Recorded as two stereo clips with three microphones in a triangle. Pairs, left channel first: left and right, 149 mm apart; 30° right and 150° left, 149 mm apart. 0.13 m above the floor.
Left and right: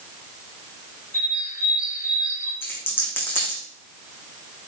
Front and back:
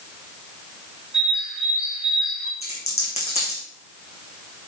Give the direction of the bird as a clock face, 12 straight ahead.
10 o'clock.